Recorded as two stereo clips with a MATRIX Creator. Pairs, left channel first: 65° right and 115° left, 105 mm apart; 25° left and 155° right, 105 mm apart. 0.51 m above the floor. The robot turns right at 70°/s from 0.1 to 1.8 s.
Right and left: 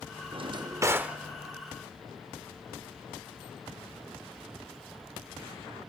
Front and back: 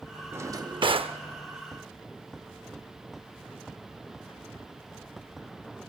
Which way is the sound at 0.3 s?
135° left.